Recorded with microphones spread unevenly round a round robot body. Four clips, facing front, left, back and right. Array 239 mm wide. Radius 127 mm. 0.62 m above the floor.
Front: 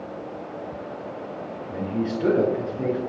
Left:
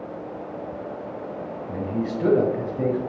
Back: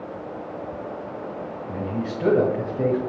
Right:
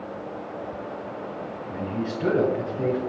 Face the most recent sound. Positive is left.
turn(degrees=110)